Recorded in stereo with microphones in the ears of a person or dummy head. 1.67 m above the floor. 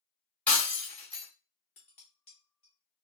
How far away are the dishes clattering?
About 0.8 m.